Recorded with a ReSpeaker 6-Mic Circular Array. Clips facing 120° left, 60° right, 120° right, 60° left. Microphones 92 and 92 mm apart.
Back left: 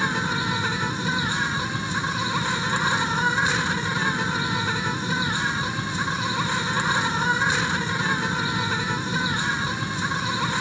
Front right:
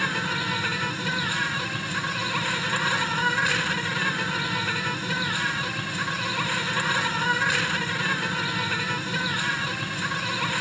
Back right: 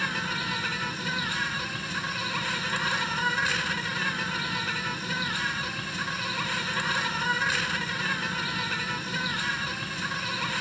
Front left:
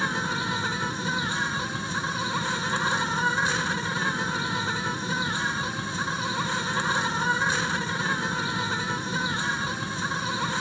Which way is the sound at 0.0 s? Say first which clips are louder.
Back left 3 dB, front left 3 dB; 80° left.